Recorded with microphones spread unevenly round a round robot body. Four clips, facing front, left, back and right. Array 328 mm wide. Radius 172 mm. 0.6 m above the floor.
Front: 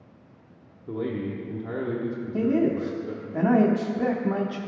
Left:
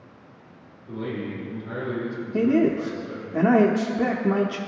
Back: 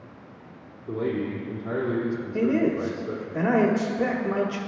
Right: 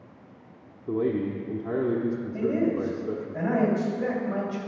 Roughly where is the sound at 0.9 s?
Right.